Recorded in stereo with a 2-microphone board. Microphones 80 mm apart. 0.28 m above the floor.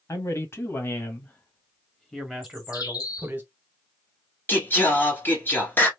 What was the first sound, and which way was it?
A man speaking, 40° left (ahead or behind).